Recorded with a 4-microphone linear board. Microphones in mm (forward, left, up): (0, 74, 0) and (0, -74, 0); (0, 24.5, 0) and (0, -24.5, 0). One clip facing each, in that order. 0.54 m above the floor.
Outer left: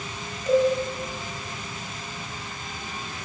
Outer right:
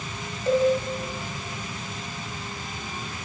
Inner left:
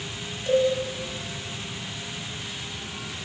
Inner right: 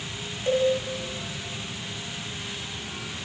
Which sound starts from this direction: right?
A cowbell, at 0.5 s.